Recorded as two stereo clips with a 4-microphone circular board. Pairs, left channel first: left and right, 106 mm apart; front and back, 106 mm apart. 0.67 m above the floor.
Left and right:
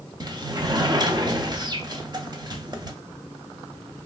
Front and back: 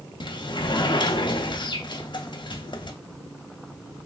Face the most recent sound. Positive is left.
turn(degrees=-40)